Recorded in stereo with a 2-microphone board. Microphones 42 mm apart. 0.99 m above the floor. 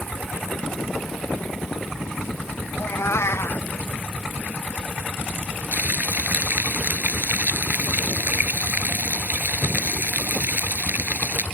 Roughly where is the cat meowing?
Left.